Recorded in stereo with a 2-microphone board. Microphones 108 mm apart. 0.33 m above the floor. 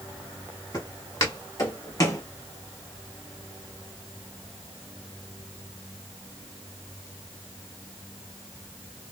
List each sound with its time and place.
0.7 s footsteps: 30° left (ahead or behind), 1.6 m